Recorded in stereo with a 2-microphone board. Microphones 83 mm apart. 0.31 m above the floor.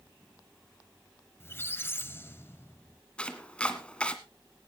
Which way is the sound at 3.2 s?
10° left (ahead or behind).